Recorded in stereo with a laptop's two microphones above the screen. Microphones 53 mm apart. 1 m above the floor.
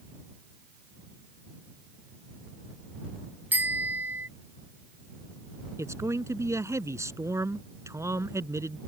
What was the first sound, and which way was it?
A bicycle bell, 35° right (ahead or behind).